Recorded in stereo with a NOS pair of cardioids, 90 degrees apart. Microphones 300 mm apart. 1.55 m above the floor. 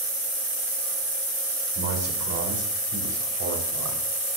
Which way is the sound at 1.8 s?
55° right.